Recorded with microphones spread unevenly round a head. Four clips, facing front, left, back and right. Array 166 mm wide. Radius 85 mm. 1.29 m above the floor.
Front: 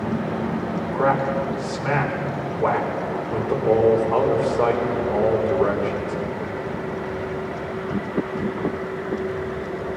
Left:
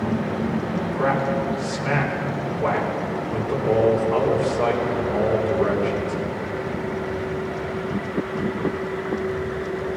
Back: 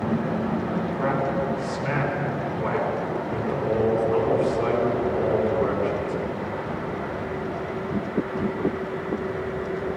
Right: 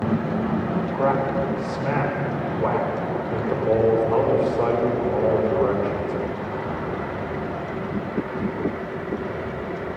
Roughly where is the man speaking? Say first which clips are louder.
Even, front 6 dB; ahead.